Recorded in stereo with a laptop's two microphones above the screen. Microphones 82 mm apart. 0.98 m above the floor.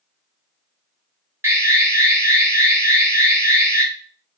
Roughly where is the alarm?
Right.